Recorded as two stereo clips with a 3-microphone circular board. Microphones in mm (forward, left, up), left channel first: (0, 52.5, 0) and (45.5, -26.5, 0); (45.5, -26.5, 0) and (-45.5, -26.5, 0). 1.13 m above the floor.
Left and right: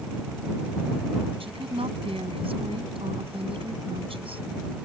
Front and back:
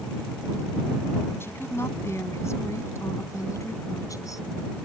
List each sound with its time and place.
1.4 s a woman speaking: 65° right; by 4.5 s 50° right